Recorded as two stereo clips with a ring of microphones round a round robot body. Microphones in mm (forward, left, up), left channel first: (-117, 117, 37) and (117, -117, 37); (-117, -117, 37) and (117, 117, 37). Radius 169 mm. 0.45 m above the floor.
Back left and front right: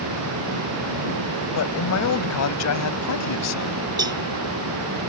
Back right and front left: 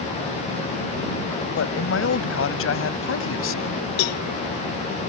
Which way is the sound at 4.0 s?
125° right.